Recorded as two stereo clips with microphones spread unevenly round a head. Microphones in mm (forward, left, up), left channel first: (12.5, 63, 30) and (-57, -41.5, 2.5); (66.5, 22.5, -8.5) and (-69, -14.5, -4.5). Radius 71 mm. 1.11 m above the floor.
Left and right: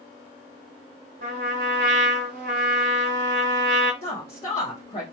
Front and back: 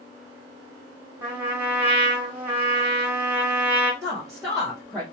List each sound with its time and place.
1.2 s a trumpet: 95° right, 1.0 m
4.0 s a woman speaking: 100° left, 1.2 m